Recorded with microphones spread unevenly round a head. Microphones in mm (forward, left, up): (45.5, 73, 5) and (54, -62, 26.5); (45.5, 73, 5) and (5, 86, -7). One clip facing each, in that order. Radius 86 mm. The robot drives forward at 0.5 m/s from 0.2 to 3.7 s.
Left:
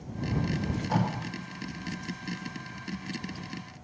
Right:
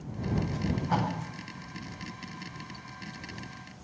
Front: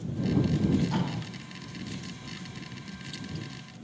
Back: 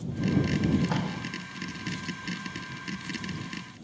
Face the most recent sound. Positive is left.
turn(degrees=170)